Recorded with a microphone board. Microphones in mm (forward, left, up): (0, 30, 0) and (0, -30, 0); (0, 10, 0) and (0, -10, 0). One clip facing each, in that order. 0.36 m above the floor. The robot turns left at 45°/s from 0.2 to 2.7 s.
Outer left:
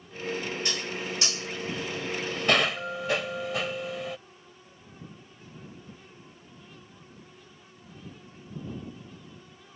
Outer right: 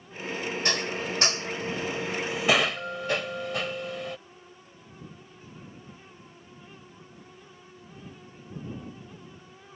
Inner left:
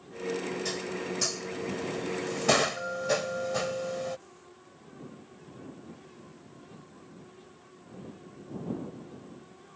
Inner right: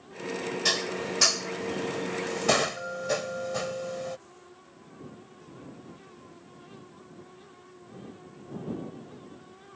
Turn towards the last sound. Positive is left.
turn(degrees=0)  # may be behind; listen again after turning